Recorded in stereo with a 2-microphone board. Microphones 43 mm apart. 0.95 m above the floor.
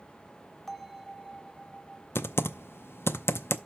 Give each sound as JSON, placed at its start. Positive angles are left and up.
{"t": 0.7, "sound": "a bell", "side_deg": 10, "distance_m": 0.7}
{"t": 2.1, "sound": "typing on a keyboard", "side_deg": 75, "distance_m": 0.5}